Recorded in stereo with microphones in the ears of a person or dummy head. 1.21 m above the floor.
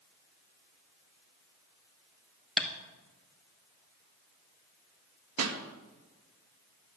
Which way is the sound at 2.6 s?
5° left (ahead or behind).